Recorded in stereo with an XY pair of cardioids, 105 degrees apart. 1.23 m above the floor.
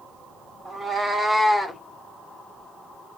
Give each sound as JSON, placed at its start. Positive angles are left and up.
{"t": 0.7, "sound": "a cat meowing", "azimuth_deg": -35, "distance_m": 1.7}